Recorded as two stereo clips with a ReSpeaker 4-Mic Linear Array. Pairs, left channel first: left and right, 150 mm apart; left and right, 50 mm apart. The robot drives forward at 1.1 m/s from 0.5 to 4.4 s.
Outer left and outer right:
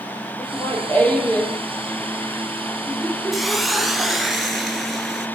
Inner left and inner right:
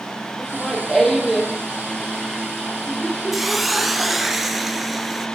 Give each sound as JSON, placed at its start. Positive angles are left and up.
{"t": 0.4, "sound": "laughter", "side_deg": 10, "distance_m": 5.5}
{"t": 3.3, "sound": "a hiss", "side_deg": 0, "distance_m": 0.9}